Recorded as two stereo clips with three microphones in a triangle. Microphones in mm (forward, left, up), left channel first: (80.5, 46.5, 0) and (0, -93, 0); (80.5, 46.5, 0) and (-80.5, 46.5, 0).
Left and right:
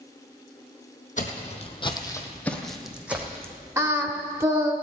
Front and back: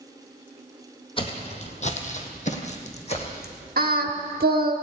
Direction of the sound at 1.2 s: 45° left.